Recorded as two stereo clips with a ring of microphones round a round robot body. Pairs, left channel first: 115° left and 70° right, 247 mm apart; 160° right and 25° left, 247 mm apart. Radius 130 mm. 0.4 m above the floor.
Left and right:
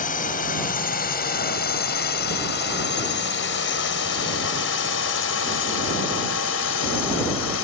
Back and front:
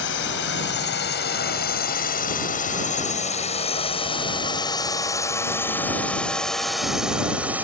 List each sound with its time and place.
0.0 s a drone: 165° left; by 7.7 s 105° left